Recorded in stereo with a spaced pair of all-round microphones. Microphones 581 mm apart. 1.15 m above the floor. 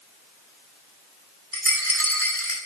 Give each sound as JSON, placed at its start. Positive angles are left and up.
{"t": 1.5, "sound": "a rattle", "side_deg": 20, "distance_m": 4.5}